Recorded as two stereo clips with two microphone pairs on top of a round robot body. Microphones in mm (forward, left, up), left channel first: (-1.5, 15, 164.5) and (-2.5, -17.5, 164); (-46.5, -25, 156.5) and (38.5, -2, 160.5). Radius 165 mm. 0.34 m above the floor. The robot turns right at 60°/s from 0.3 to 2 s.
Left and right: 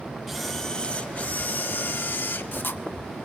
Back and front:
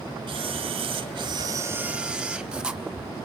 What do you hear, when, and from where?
0.3 s a camera shutter: 5° right, 1.0 m; by 2.8 s 95° left, 1.0 m